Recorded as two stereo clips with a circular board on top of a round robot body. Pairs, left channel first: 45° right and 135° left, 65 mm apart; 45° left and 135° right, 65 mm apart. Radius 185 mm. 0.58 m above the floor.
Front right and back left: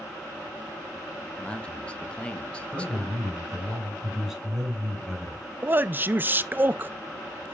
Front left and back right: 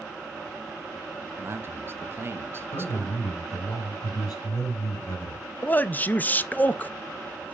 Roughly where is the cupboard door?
No cupboard door in this recording.